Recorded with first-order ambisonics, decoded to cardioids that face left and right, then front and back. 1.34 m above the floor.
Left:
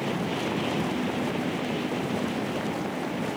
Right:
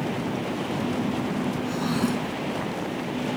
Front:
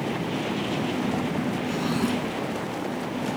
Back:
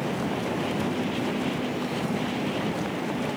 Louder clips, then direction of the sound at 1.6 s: Right 2 dB, front 3 dB; 60° right.